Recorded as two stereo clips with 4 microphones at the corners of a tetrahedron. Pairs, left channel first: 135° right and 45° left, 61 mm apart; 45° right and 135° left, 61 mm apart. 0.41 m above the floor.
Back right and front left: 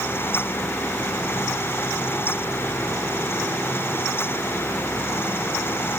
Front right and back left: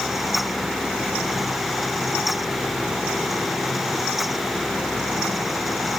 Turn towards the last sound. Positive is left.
No sound to turn to.